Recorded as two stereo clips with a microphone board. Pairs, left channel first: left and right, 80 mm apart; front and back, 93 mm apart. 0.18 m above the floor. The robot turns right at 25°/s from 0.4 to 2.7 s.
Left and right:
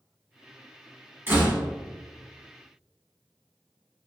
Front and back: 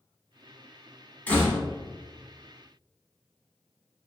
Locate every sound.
1.3 s a door slam: 60° right, 0.7 m; by 1.6 s 50° right, 0.7 m